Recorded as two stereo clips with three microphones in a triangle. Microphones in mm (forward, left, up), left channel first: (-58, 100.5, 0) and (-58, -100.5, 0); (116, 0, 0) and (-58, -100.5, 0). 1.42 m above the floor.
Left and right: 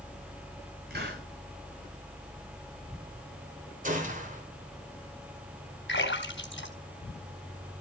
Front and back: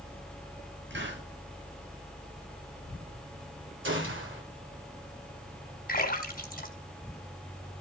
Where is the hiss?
130° right, 10 m.